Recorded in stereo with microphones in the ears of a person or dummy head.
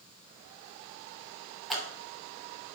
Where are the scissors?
Centre (ahead or behind), 3 m.